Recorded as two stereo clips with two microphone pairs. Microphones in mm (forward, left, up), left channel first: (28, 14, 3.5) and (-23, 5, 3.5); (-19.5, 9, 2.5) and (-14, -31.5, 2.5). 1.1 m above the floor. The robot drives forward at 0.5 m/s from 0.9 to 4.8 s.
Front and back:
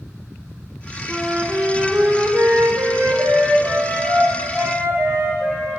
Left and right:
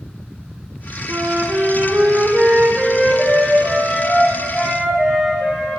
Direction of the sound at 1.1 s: 95° right.